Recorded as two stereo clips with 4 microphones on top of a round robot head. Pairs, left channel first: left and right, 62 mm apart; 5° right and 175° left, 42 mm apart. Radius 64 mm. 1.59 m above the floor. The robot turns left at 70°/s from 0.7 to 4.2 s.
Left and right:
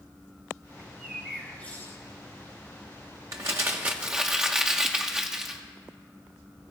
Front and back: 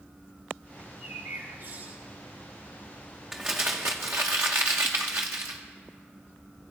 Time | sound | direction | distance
0.8 | a bird | 150° right | 3.5 m
3.3 | crumpling | 100° right | 0.8 m